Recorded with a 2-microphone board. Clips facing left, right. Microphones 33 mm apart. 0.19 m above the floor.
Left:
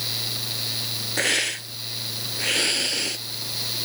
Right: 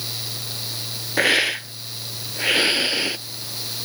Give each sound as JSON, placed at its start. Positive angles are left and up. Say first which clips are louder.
{"t": 1.2, "sound": "a hiss", "louder": "right 6 dB", "side_deg": -25}